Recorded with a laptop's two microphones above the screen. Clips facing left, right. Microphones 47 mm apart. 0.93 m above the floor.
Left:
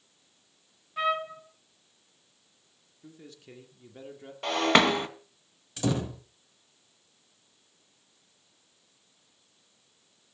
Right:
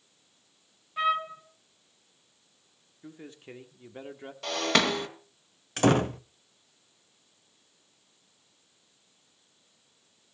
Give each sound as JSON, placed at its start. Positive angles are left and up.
{"t": 1.0, "sound": "a trumpet", "side_deg": 0, "distance_m": 1.8}
{"t": 3.0, "sound": "a man speaking", "side_deg": -30, "distance_m": 1.8}
{"t": 4.4, "sound": "breaking glass", "side_deg": 25, "distance_m": 2.0}
{"t": 5.8, "sound": "a door slam", "side_deg": -55, "distance_m": 0.9}